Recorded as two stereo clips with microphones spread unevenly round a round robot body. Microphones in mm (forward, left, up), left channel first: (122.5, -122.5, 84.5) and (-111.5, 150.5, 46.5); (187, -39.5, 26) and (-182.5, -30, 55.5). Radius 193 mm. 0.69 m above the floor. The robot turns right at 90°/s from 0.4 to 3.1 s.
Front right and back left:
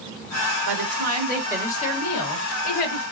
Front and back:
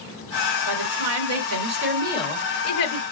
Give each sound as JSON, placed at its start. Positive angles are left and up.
{"t": 0.7, "sound": "a woman speaking", "azimuth_deg": 135, "distance_m": 2.5}